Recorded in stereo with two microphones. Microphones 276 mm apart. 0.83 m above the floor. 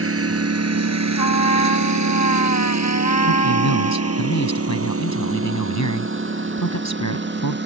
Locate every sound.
0.0 s a lawn mower: 55° right (ahead or behind); by 7.7 s 40° right (ahead or behind)
1.2 s a trumpet: 85° left
3.3 s a man speaking: 85° left